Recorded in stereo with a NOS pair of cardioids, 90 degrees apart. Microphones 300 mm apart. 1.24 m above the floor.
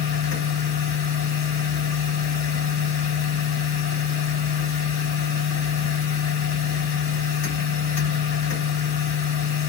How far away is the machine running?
About 3.5 m.